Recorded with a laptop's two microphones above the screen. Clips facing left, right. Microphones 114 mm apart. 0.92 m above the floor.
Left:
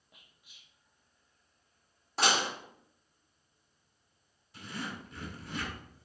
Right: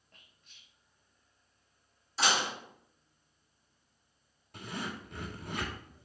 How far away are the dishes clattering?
About 1.4 m.